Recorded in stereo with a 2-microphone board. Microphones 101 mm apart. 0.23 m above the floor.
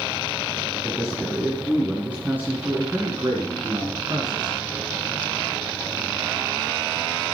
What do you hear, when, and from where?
0.8 s a man speaking: 5° left (ahead or behind), 2.5 m; by 4.6 s 50° right (ahead or behind), 2.5 m